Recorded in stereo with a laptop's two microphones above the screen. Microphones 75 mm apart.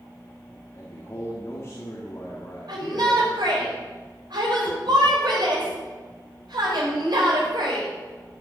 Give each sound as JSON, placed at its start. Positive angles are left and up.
{"t": 0.7, "sound": "a man speaking", "side_deg": 40, "distance_m": 2.0}
{"t": 2.7, "sound": "a shout", "side_deg": -80, "distance_m": 4.5}